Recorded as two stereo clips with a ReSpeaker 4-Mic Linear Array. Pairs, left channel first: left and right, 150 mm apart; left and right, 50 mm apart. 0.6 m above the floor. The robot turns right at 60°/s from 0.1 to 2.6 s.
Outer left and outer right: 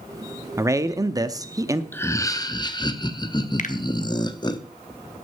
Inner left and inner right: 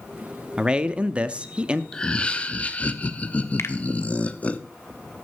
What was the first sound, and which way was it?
A man speaking, 20° right (ahead or behind).